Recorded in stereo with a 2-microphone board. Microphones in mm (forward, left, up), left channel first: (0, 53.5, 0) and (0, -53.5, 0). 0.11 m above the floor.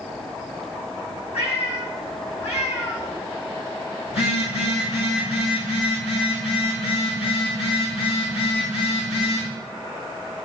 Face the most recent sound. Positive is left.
turn(degrees=80)